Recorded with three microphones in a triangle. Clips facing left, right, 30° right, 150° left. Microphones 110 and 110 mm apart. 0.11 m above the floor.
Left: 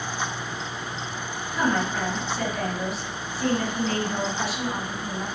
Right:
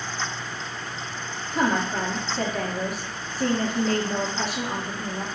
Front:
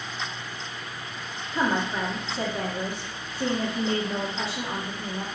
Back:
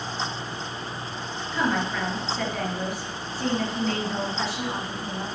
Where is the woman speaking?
85° right, 2.5 m.